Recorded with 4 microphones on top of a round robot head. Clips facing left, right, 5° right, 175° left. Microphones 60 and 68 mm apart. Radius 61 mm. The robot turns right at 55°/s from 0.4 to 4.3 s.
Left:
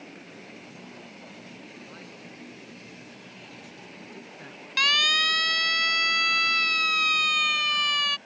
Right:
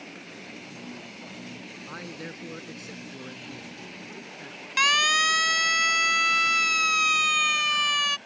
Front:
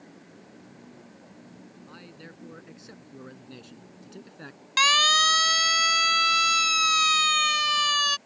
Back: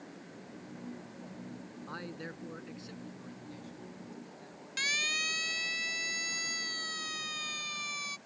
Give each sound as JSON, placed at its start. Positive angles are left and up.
{"t": 1.9, "sound": "a man speaking", "azimuth_deg": -130}
{"t": 4.8, "sound": "a siren", "azimuth_deg": -15}